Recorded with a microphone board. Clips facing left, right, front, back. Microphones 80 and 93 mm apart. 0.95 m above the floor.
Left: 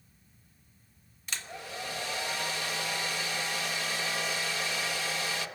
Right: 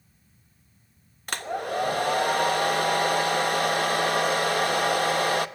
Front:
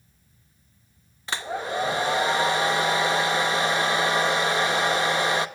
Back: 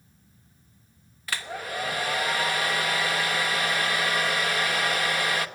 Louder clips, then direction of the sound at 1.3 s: Right 12 dB, front 4 dB; 65° right.